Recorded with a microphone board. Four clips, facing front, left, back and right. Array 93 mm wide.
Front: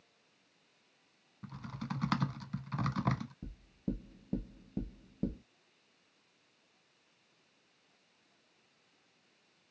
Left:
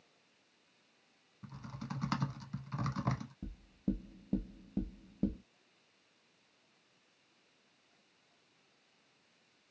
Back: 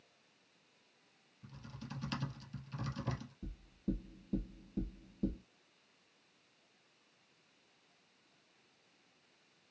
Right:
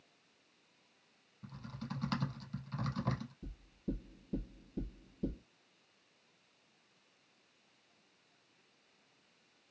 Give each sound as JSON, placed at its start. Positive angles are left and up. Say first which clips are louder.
{"t": 1.4, "sound": "typing on a keyboard", "louder": "even, front 8 dB", "azimuth_deg": 10, "distance_m": 0.7}
{"t": 3.4, "sound": "knocking", "louder": "left 4 dB, front 1 dB", "azimuth_deg": 55, "distance_m": 1.3}